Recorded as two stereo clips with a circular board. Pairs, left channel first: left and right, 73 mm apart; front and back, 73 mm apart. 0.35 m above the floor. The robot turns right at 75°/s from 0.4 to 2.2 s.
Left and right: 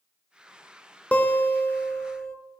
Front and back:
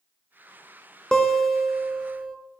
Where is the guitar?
65° left, 0.8 m; by 2.4 s 145° left, 0.8 m.